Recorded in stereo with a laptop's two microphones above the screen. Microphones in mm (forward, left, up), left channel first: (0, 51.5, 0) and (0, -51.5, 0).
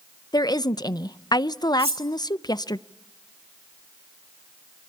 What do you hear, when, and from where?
0.3 s a woman speaking: 40° left (ahead or behind), 0.5 m
1.8 s cutlery clinking: 85° right, 3 m